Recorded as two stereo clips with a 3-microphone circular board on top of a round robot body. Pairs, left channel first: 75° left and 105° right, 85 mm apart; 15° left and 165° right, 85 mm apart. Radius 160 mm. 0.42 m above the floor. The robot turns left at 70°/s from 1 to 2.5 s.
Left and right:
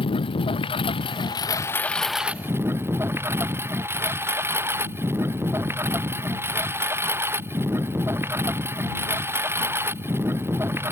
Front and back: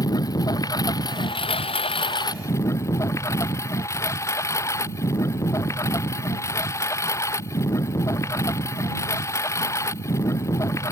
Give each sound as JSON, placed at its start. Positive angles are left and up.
{"t": 0.0, "sound": "a lawn mower", "azimuth_deg": 60}